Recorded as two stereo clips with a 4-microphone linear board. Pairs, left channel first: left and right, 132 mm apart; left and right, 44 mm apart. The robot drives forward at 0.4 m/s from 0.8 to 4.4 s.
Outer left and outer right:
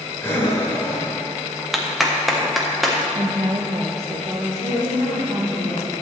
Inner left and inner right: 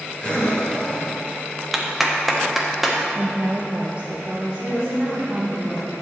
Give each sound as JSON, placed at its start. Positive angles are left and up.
{"t": 0.2, "sound": "breathing", "side_deg": 15, "distance_m": 2.0}
{"t": 1.7, "sound": "a clap", "side_deg": 0, "distance_m": 1.1}
{"t": 3.1, "sound": "a woman speaking", "side_deg": -40, "distance_m": 0.6}
{"t": 4.6, "sound": "a woman speaking", "side_deg": -35, "distance_m": 3.5}